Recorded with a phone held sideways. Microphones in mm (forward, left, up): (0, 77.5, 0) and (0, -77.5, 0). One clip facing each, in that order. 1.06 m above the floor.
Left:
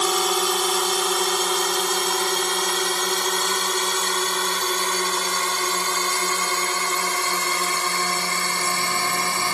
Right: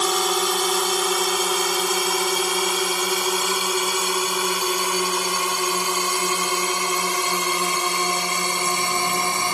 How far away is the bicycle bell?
I don't hear a bicycle bell.